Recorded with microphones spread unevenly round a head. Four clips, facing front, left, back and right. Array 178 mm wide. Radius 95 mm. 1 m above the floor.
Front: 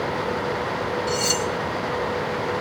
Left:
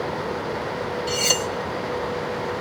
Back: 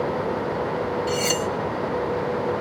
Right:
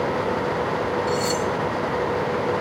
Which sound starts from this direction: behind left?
Cutlery clinking, at 1.1 s.